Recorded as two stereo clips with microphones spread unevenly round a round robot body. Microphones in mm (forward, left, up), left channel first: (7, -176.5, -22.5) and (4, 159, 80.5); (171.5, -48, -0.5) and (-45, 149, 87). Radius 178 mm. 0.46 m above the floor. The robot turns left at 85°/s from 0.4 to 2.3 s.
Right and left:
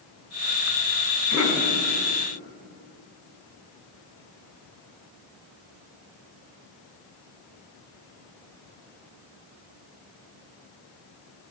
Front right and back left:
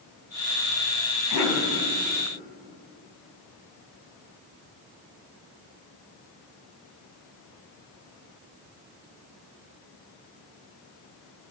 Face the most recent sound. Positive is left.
turn(degrees=-110)